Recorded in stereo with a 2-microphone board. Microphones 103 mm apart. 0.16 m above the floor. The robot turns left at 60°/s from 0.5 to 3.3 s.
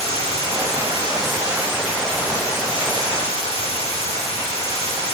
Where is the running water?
95° right, 1.5 m; by 5.2 s 95° left, 1.5 m.